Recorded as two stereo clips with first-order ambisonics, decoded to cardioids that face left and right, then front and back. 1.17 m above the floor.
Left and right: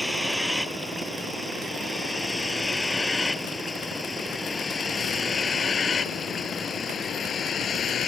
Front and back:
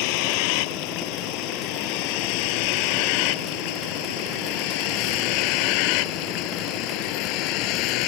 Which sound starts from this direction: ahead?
A vehicle, at 0.0 s.